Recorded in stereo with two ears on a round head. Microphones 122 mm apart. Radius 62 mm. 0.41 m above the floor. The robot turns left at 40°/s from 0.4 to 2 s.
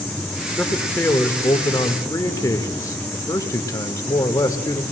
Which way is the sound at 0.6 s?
10° left (ahead or behind).